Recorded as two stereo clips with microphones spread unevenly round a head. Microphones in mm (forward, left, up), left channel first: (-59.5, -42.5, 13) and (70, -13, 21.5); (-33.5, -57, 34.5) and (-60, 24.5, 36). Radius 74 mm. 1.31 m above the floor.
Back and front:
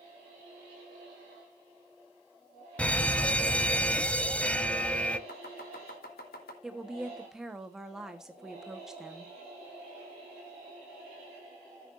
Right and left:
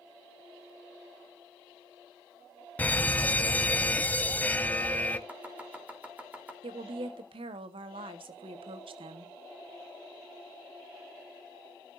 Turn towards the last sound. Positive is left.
turn(degrees=100)